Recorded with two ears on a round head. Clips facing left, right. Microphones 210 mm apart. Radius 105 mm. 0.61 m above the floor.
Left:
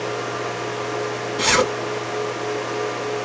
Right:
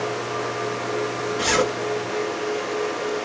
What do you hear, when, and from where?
1.4 s a zipper: 55° left (ahead or behind), 1.7 m